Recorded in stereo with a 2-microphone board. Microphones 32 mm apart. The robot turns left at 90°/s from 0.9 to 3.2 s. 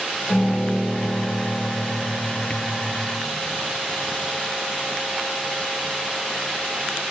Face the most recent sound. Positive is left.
turn(degrees=-100)